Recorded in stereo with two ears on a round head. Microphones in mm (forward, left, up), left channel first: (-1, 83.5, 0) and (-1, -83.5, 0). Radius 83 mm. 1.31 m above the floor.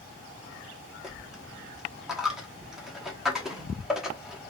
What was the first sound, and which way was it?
A dropped coin, 5° right (ahead or behind).